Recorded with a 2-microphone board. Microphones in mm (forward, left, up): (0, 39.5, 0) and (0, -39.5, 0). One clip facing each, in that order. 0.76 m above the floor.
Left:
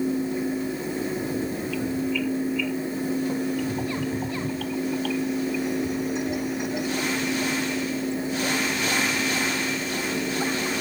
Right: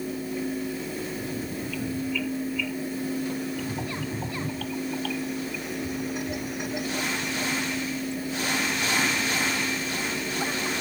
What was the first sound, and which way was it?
Only background noise.